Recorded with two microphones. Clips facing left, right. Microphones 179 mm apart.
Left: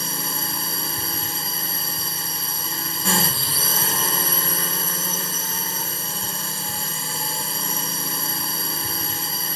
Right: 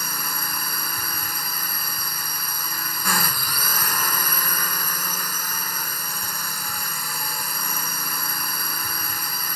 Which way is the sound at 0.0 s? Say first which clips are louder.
Left 3 dB; 25° left (ahead or behind).